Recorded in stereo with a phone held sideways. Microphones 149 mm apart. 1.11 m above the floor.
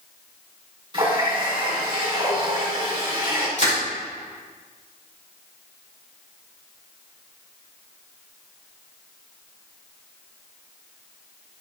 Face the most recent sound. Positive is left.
turn(degrees=55)  # may be behind; listen again after turning